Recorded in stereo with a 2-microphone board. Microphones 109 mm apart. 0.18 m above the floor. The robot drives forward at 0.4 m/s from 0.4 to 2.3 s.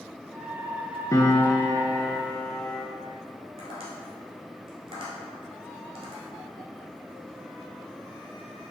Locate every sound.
1.1 s a piano: 30° left (ahead or behind), 0.5 m; by 2.8 s 15° left (ahead or behind), 0.9 m
3.6 s tapping: 50° right (ahead or behind), 1.4 m